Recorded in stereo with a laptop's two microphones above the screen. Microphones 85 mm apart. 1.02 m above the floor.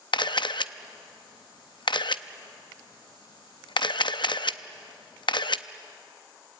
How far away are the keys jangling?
I don't hear keys jangling.